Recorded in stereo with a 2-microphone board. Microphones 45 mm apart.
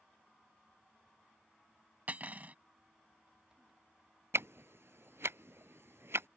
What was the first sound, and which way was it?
Cutlery clinking, 40° right (ahead or behind).